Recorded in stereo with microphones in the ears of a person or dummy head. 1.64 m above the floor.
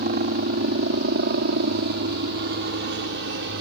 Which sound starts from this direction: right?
A helicopter, at 0.0 s.